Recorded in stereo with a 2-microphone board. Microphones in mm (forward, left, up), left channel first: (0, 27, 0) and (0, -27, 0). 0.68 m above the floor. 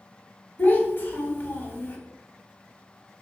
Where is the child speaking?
40° left (ahead or behind), 1.0 m.